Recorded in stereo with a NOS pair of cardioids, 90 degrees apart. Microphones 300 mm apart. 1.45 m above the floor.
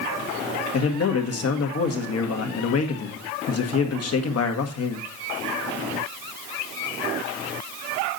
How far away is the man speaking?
About 1.8 m.